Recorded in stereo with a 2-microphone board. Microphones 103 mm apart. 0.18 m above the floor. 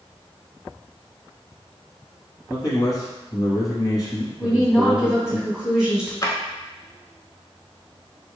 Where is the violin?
I don't hear a violin.